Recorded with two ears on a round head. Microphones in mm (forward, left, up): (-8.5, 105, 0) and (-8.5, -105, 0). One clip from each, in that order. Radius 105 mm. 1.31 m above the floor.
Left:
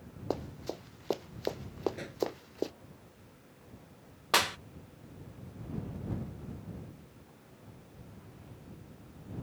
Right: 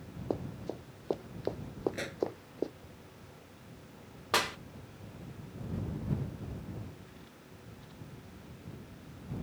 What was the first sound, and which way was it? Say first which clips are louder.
Running footsteps: left 1 dB; 55° left (ahead or behind).